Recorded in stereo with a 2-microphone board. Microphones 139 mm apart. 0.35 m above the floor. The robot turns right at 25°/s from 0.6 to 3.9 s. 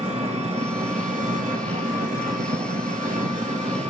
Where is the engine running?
130° right, 1.2 m; by 3.9 s 45° right, 1.2 m.